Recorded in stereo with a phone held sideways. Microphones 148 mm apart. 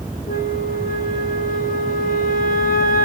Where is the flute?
75° left (ahead or behind), 0.9 m.